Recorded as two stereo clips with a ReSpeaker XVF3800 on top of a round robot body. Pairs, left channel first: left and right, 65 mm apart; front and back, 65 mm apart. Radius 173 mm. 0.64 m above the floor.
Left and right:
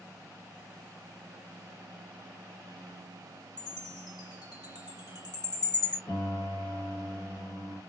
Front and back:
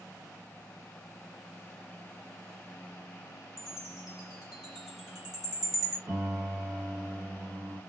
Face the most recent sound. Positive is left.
turn(degrees=110)